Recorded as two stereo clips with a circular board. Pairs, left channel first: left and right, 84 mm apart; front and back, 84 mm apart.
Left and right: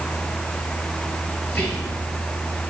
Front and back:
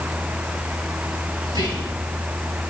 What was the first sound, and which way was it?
Whispering, 160° left.